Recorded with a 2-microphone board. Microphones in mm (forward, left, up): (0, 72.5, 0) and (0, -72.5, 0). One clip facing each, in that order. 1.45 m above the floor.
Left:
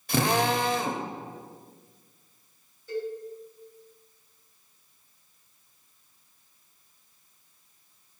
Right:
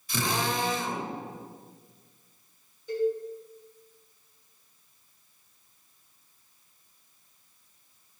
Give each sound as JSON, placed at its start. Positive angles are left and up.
{"t": 0.1, "sound": "a drill", "side_deg": 65, "distance_m": 0.7}
{"t": 2.9, "sound": "a cowbell", "side_deg": -15, "distance_m": 2.5}